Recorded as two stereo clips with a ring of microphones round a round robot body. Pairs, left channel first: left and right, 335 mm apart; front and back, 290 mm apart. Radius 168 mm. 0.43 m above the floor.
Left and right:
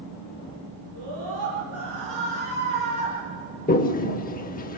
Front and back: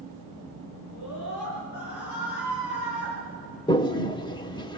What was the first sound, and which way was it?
A scream, 50° right.